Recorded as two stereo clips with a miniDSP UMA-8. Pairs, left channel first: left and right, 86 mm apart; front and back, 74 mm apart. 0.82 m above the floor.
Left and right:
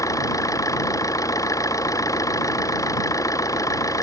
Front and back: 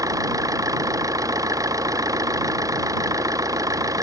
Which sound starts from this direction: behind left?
An engine running, at 0.0 s.